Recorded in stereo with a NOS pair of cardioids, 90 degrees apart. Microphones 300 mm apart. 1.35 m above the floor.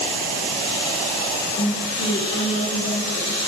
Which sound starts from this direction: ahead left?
A woman speaking, at 1.6 s.